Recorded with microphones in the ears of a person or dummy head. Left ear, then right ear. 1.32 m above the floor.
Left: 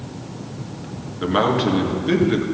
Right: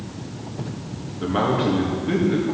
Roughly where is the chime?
I don't hear a chime.